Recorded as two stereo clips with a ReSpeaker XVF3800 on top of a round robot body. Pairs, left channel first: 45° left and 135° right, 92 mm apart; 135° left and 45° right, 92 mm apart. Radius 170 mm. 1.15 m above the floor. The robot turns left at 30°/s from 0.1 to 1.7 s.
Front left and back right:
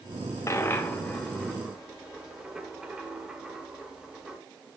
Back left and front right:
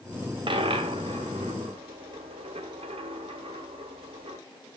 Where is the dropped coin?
15° right, 1.2 m; by 4.4 s 55° right, 1.2 m.